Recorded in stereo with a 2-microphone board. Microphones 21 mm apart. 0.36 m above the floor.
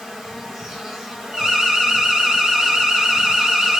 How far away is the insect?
About 1.6 m.